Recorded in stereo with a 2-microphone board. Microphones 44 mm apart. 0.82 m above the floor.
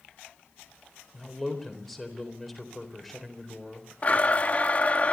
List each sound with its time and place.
1.1 s a man speaking: centre (ahead or behind), 4 m
4.0 s a blender: 35° left (ahead or behind), 1.0 m